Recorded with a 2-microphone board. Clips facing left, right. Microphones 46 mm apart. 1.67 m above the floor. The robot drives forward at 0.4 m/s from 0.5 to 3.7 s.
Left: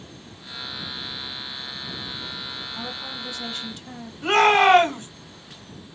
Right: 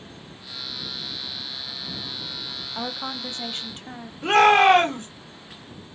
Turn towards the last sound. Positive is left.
turn(degrees=-5)  # may be behind; listen again after turning